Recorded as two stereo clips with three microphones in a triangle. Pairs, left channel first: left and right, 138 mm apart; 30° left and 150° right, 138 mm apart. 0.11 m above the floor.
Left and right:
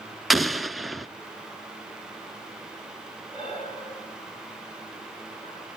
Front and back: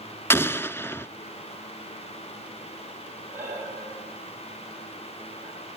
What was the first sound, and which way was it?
An explosion, straight ahead.